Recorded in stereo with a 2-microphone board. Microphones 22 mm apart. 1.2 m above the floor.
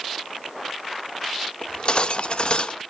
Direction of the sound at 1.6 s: 50° left (ahead or behind).